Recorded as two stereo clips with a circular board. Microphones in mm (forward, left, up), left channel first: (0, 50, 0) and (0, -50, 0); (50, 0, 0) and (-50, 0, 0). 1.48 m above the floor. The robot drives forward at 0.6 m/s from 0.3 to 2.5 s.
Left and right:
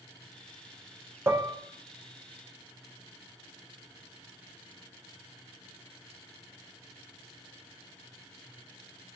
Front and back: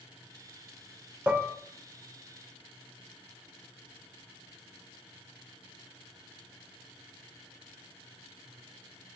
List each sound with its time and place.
1.3 s dishes clattering: 120° right, 0.6 m; by 1.6 s 145° right, 0.7 m